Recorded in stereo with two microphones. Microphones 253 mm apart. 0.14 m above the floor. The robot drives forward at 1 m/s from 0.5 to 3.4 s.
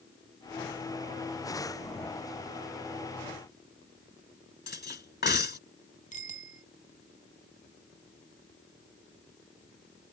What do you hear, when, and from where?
4.7 s cutlery clinking: 45° left (ahead or behind)
6.1 s a bicycle bell: 30° left (ahead or behind)